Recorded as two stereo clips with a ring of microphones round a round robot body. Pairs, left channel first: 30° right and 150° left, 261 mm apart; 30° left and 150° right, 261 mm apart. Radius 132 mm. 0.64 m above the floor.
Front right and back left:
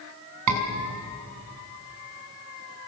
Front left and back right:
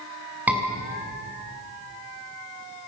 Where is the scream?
125° left, 6.5 m.